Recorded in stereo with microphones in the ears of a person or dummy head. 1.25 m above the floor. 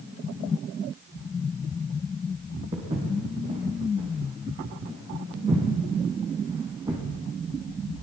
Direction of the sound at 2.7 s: 30° right (ahead or behind).